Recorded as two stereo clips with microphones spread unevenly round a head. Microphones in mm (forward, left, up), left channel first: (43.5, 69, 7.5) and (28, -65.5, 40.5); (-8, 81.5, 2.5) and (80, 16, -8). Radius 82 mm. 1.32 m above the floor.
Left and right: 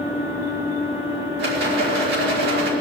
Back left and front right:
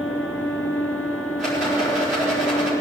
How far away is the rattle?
About 5 m.